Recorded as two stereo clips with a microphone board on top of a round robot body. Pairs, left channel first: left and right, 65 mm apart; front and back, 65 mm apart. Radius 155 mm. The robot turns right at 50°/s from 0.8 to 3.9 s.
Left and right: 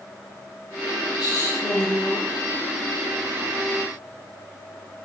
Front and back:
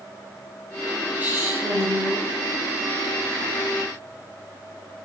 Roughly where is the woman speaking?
Left.